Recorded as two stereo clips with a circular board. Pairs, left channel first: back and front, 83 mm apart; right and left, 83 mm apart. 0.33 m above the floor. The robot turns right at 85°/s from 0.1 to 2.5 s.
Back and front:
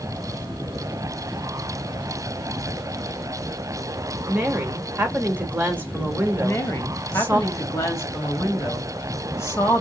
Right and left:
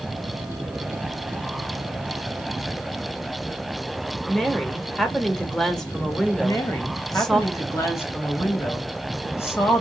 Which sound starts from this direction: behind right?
A woman speaking, at 6.4 s.